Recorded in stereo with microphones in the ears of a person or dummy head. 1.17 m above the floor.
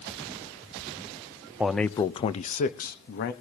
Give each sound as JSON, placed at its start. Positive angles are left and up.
{"t": 1.6, "sound": "a man speaking", "side_deg": 0, "distance_m": 0.6}